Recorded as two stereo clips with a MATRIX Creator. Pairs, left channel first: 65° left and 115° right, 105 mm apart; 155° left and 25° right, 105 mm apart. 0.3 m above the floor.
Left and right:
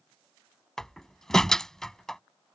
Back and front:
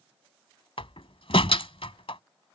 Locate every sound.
0.8 s a door slam: 155° left